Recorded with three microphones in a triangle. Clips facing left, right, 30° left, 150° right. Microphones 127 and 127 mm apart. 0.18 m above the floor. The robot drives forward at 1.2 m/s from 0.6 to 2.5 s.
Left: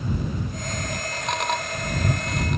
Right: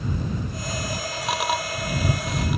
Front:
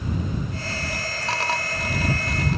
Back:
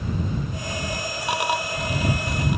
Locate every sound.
Only background noise.